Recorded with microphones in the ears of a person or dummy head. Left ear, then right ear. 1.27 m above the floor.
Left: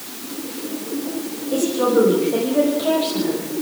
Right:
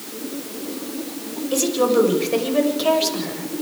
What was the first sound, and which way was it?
A woman speaking, 80° right.